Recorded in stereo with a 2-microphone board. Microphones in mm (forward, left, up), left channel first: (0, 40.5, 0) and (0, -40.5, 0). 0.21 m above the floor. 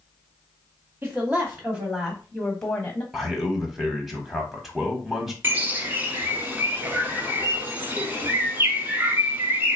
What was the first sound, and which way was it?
A woman speaking, 30° right (ahead or behind).